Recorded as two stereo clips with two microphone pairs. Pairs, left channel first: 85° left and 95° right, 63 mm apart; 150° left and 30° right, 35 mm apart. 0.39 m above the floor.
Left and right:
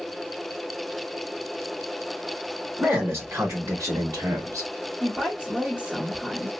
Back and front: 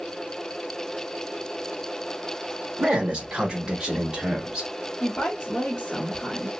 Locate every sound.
2.8 s a man speaking: 65° right, 1.0 m; by 4.7 s 100° right, 2.0 m
5.0 s a woman speaking: 160° right, 1.2 m